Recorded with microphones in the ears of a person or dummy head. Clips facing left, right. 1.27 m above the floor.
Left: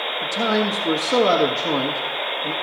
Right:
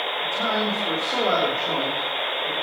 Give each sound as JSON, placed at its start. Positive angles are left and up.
{"t": 0.2, "sound": "a man speaking", "side_deg": 80, "distance_m": 1.6}